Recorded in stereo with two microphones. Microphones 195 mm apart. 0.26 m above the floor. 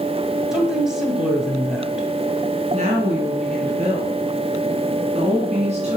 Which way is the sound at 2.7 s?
35° right (ahead or behind).